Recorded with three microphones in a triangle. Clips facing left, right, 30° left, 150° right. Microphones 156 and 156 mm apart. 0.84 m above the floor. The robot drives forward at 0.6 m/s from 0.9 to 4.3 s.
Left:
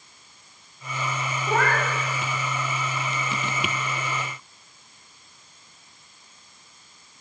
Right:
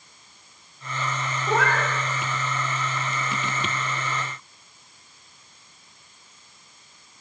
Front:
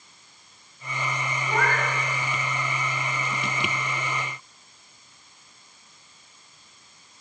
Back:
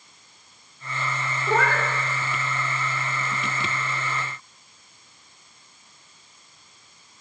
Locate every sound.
1.5 s a cat meowing: 175° right, 1.0 m